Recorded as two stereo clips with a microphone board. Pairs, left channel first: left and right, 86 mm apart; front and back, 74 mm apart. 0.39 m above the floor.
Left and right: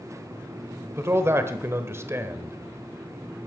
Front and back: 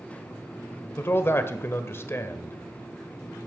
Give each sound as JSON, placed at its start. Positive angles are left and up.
{"t": 1.0, "sound": "a man speaking", "azimuth_deg": -45, "distance_m": 1.1}